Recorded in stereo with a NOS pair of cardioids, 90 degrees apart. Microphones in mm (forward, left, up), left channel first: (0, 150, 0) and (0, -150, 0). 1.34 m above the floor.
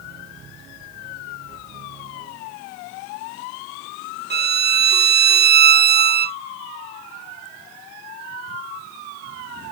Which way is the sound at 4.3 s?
35° right.